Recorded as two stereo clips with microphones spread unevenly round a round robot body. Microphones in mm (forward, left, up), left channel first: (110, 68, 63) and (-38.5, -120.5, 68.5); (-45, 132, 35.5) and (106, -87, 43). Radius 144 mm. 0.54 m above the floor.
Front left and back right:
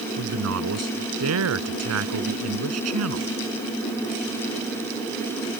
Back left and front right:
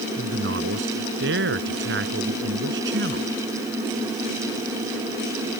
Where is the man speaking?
110° right.